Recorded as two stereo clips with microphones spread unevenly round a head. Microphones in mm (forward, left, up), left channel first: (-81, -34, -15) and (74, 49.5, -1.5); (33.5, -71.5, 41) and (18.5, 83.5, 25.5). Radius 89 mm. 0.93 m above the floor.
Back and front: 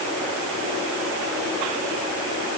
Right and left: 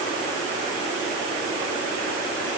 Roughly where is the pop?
I don't hear a pop.